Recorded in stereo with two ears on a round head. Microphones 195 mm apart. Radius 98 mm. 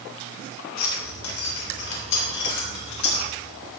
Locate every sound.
0.8 s keys jangling: 65° left (ahead or behind), 3.5 m